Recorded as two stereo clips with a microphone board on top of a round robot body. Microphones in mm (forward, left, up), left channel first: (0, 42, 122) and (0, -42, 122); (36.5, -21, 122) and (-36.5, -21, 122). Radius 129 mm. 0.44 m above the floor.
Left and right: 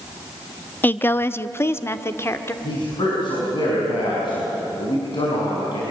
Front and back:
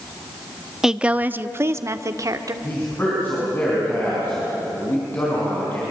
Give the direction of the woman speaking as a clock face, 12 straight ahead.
9 o'clock.